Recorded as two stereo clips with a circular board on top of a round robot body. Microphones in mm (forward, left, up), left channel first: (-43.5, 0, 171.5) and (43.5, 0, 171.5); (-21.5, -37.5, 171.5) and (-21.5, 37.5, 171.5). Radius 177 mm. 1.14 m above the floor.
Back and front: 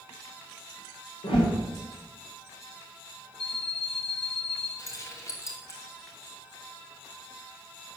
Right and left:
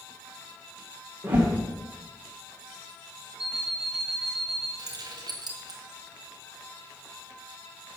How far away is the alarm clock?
About 3 m.